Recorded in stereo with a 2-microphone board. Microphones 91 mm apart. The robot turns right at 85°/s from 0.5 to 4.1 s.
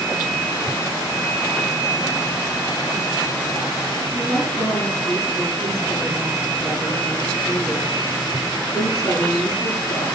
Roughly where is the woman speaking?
Left.